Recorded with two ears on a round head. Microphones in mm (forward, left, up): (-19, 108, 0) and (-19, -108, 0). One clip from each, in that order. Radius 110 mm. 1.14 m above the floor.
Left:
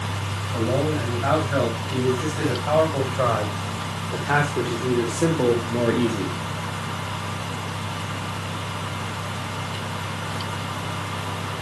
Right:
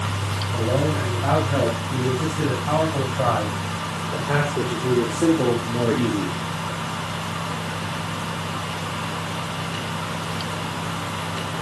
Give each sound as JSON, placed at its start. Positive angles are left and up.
{"t": 0.5, "sound": "a man speaking", "side_deg": 85, "distance_m": 7.0}